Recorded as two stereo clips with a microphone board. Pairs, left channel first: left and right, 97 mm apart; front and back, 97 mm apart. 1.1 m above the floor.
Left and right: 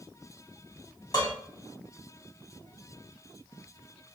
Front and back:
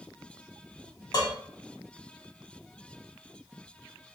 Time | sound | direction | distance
1.1 | dishes clattering | 45° left | 1.7 m